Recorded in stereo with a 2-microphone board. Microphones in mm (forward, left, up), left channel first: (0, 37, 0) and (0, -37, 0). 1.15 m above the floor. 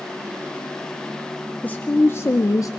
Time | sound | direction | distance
1.6 | a woman speaking | 20° left (ahead or behind) | 1.0 m